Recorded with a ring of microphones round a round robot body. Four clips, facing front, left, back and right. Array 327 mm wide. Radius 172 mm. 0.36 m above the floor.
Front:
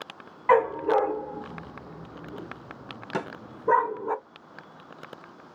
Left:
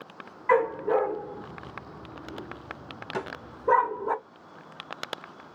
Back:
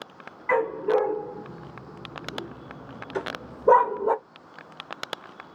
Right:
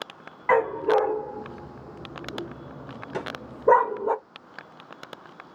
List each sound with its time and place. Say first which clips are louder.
0.5 s a dog barking: right 2 dB, front 2 dB; 50° right, 1.7 m; by 4.1 s 155° right, 1.0 m
3.1 s a snare drum: right 1 dB, back 1 dB; straight ahead, 1.2 m